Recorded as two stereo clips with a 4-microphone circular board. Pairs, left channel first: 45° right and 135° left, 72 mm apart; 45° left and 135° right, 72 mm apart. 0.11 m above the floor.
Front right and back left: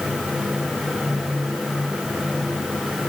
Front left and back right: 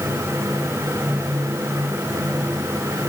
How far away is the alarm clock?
I don't hear an alarm clock.